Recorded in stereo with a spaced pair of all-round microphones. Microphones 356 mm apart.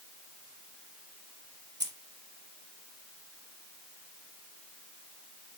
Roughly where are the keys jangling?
Right.